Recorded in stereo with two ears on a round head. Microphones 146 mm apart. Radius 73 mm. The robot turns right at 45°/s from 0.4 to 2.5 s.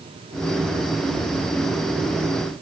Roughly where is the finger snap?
No finger snap in this recording.